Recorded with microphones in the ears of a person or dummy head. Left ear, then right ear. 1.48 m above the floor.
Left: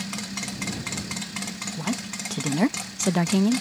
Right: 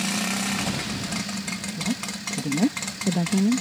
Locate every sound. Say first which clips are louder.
1.8 s a woman speaking: right 1 dB; 45° left (ahead or behind)